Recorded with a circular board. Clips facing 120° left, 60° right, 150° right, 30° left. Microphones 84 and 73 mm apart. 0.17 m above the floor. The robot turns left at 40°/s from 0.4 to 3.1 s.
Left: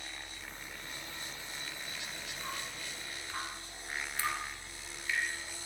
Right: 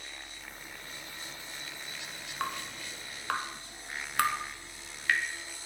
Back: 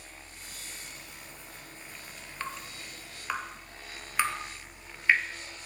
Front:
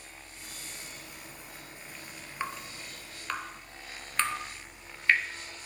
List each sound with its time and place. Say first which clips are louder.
2.4 s dripping: right 8 dB, front 2 dB; 45° right, 1.9 m; by 5.2 s 70° right, 1.9 m